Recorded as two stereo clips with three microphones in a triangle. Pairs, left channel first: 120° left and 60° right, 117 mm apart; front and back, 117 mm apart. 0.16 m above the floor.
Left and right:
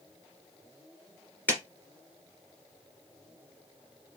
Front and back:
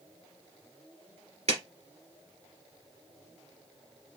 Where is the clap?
165° right, 2 m.